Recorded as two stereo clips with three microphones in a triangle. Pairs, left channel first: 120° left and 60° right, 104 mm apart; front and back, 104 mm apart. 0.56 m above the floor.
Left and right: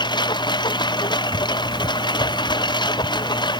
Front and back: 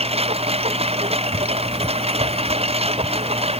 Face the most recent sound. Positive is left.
turn(degrees=165)